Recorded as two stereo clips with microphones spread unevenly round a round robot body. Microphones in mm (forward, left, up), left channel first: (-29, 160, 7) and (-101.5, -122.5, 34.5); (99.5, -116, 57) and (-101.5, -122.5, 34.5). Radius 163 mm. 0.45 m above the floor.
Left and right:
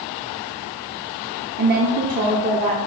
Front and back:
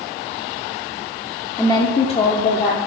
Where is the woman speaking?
75° right, 0.9 m; by 2.8 s 40° right, 1.2 m.